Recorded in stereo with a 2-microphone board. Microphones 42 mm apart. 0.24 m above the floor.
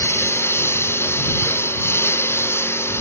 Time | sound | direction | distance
0.0 | a lawn mower | 80° left | ?